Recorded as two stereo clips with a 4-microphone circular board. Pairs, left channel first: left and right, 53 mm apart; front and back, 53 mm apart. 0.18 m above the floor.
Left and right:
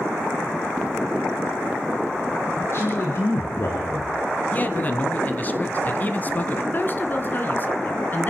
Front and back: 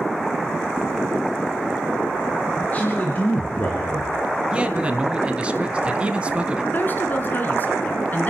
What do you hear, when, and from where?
2.6 s a man speaking: 60° left, 2.5 m
4.5 s a man speaking: 130° left, 1.4 m
6.7 s a woman speaking: 45° left, 1.7 m